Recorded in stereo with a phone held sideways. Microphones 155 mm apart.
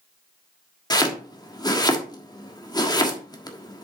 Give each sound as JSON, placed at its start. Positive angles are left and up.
{"t": 0.9, "sound": "chopping", "side_deg": 25, "distance_m": 1.4}